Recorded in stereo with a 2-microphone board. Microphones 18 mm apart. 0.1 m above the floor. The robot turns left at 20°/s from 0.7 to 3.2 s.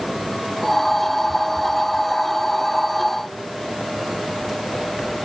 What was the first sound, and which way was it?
Only background noise.